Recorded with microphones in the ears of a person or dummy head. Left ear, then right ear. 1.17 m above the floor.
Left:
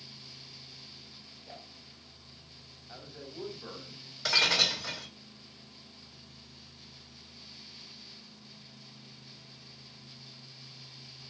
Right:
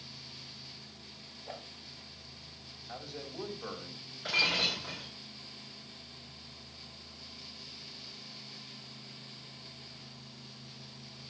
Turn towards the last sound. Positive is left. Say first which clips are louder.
# left 4 dB
turn(degrees=70)  # may be behind; listen again after turning